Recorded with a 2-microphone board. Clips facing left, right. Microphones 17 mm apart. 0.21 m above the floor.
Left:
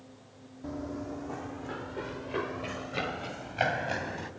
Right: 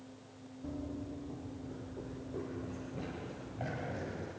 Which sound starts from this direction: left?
Running footsteps, at 0.6 s.